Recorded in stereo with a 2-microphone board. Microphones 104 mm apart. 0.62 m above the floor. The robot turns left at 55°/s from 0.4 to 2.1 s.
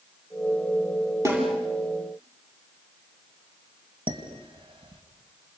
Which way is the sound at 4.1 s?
60° right (ahead or behind).